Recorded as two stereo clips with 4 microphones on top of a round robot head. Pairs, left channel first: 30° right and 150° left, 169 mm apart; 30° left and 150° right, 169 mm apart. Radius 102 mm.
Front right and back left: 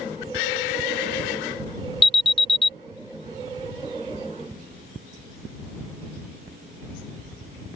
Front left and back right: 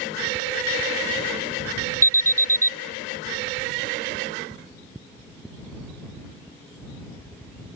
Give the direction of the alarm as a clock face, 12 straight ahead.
3 o'clock.